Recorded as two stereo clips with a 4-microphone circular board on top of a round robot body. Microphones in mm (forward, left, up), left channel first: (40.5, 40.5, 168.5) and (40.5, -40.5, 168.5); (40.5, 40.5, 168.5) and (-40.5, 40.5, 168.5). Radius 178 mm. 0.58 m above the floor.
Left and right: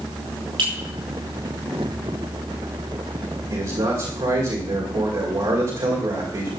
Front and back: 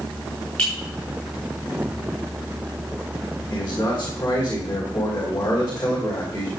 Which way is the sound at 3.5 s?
60° right.